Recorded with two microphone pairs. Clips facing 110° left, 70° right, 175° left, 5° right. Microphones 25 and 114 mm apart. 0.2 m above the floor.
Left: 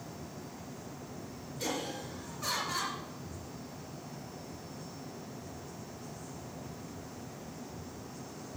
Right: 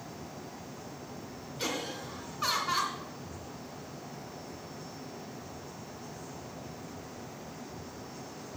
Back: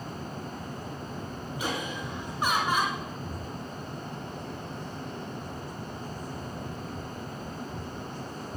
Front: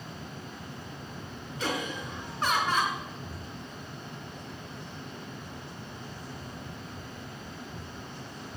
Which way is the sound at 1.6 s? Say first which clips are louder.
Right 1 dB, front 1 dB; 105° right.